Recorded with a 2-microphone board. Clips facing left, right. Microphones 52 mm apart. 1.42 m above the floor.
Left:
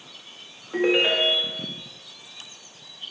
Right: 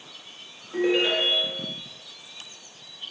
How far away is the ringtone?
About 1.2 m.